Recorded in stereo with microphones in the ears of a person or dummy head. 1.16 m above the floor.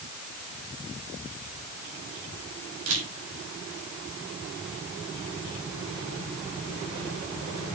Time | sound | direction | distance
2.9 | a camera shutter | 85° right | 5 m